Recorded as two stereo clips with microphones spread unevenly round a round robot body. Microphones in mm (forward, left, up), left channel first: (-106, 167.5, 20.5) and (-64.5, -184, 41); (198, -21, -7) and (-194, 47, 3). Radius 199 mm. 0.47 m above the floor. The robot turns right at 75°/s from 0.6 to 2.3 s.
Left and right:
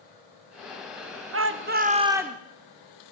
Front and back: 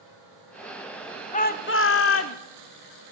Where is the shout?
65° right, 1.2 m; by 2.4 s 5° left, 1.2 m.